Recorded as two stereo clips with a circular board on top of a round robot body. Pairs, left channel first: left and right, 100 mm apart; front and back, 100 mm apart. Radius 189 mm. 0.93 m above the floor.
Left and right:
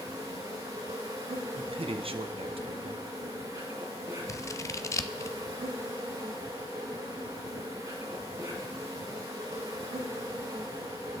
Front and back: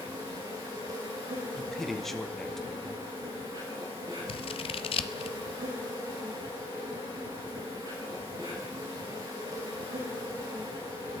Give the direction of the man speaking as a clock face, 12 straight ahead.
3 o'clock.